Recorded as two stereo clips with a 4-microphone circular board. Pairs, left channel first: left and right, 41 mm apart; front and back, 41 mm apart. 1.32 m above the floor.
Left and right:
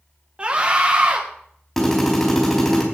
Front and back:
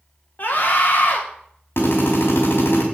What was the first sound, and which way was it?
A scream, 30° right.